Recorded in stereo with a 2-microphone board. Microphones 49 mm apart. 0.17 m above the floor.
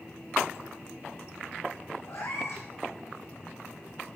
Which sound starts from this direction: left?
A cat meowing, at 2.1 s.